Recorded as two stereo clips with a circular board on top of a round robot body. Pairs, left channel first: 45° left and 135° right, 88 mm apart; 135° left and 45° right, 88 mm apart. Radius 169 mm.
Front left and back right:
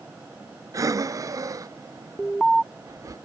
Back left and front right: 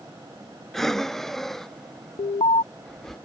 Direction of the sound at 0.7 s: 140° right.